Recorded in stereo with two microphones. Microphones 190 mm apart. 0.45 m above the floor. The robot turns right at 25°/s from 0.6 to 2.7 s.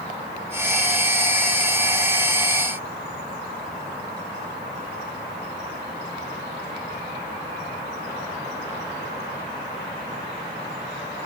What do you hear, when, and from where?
Only background noise.